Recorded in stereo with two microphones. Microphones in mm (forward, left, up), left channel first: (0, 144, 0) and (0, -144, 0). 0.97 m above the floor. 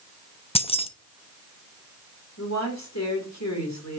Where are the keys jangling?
20° left (ahead or behind), 0.7 m.